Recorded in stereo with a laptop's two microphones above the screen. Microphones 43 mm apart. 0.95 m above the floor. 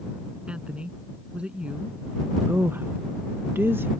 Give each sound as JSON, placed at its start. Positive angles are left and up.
{"t": 0.5, "sound": "a woman speaking", "side_deg": -30}
{"t": 2.5, "sound": "a woman speaking", "side_deg": -60}